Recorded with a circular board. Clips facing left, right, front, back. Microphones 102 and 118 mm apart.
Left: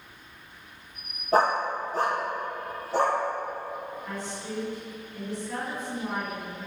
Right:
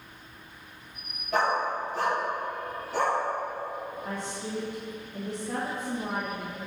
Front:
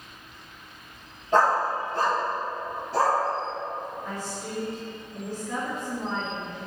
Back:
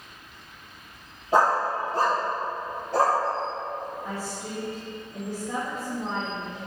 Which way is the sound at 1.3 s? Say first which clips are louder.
Left 3 dB, even; 105° left.